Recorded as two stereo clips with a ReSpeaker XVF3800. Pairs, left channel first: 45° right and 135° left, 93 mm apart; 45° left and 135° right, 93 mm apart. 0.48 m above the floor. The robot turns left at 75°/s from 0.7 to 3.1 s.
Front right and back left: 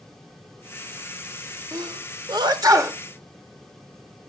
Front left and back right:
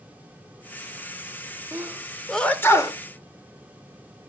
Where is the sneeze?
175° left, 1.1 m; by 3.0 s 80° left, 1.1 m.